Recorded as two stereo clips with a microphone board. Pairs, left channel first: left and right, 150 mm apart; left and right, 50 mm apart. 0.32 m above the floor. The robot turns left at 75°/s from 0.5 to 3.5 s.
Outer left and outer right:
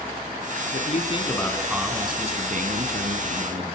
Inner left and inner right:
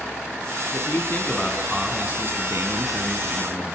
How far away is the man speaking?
About 3 m.